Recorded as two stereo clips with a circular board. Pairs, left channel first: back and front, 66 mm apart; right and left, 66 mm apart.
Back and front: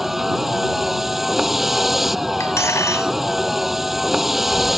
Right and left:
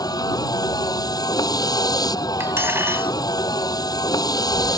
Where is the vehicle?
85° right.